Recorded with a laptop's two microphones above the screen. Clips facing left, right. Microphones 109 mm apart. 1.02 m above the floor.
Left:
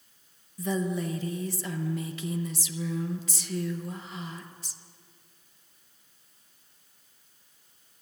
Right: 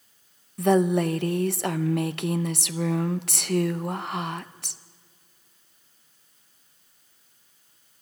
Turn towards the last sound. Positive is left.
turn(degrees=-70)  # may be behind; listen again after turning